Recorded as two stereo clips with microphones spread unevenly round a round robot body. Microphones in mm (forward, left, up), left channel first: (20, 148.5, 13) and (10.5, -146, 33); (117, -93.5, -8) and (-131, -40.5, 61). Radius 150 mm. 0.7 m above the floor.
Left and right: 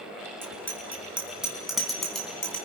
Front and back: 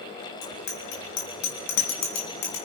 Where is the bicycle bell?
10° right, 5.5 m; by 2.6 s straight ahead, 4 m.